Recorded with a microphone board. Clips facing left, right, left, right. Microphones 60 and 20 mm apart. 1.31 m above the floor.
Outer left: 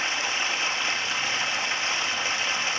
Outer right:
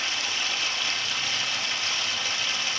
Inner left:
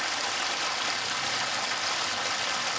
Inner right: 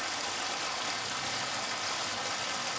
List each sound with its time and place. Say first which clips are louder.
0.0 s running water: outer left 3 dB, inner left 5 dB; 25° left (ahead or behind), 1.1 m